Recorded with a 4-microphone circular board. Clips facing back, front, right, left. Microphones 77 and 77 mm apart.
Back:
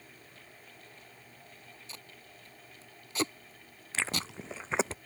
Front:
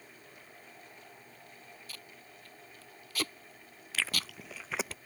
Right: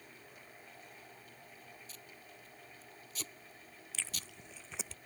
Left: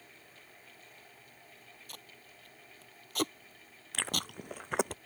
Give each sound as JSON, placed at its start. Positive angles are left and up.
{"t": 1.9, "sound": "tape being pulled", "azimuth_deg": 115}
{"t": 3.9, "sound": "chewing", "azimuth_deg": 120}